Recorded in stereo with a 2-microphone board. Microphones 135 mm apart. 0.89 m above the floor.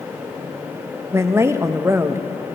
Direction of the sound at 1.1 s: 20° right (ahead or behind).